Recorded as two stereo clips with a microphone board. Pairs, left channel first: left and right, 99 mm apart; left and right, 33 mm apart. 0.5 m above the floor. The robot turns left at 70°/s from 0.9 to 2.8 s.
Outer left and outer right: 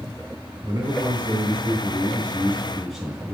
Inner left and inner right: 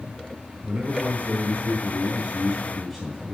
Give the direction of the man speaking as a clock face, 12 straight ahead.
1 o'clock.